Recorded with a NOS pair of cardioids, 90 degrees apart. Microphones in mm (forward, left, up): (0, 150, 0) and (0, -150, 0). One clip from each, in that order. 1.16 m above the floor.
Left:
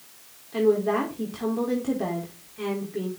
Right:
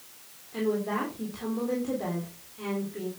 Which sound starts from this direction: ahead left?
A woman speaking, at 0.5 s.